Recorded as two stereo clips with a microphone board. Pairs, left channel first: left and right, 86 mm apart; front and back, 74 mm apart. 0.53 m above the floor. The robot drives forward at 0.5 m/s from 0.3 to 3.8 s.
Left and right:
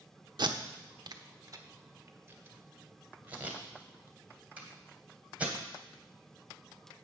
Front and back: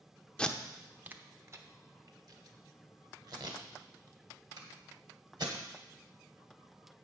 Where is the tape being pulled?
75° right, 0.6 m; by 5.5 s 165° right, 1.7 m.